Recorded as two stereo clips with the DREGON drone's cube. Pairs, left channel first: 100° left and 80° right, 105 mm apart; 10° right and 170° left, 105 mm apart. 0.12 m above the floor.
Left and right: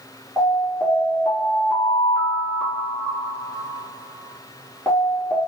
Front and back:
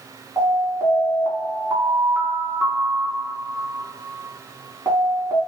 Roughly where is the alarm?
Behind.